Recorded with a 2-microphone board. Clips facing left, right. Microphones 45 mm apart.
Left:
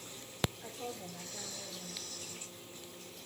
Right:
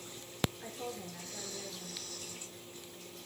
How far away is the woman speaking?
About 5.5 m.